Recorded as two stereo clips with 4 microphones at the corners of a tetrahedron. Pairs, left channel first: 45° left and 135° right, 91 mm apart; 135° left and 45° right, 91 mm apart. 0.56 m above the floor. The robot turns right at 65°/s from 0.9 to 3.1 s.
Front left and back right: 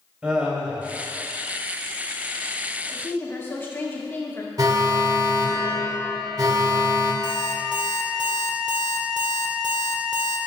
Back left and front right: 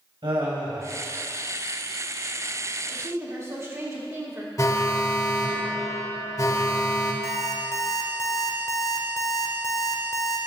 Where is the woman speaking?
20° right, 1.4 m; by 4.5 s 10° right, 1.4 m.